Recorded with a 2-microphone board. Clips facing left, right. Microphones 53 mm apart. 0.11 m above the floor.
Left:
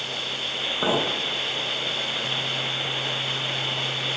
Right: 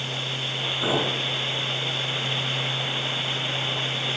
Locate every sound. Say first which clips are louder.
0.8 s a clink: left 1 dB; 40° left (ahead or behind), 3 m